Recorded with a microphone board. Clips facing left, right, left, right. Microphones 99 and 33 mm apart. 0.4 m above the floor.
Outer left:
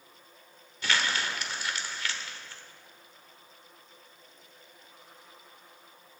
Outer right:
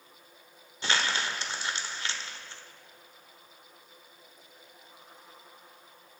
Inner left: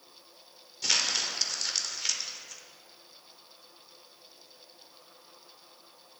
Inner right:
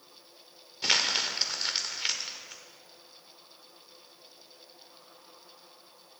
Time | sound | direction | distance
0.8 | crumpling | 30° right (ahead or behind) | 1.0 m